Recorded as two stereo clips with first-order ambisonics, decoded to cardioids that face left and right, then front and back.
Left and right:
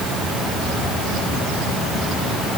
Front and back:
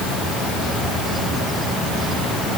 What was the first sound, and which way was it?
Only background noise.